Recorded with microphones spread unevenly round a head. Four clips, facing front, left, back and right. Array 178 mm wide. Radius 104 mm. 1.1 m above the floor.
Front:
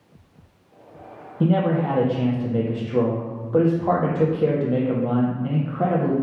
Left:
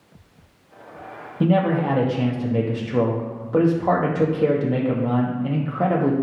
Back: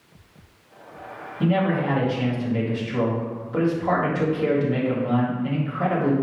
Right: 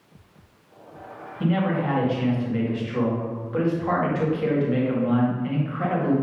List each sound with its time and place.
1.4 s a man speaking: 60° left, 1.8 m